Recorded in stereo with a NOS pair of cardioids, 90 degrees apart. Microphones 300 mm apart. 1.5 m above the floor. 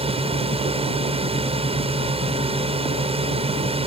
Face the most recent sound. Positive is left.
turn(degrees=-20)